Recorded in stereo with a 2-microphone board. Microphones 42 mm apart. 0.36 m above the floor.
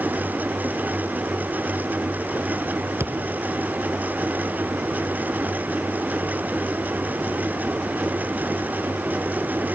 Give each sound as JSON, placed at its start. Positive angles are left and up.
{"t": 3.0, "sound": "a thud", "side_deg": -85, "distance_m": 1.9}